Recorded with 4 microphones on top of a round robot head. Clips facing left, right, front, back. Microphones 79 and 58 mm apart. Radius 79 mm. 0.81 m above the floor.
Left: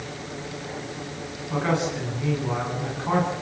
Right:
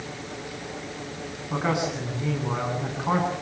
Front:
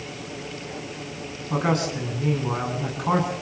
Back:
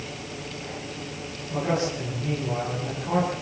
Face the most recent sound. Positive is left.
turn(degrees=-15)